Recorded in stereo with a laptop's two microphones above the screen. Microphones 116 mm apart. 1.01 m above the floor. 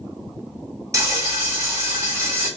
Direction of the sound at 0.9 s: 30° right (ahead or behind).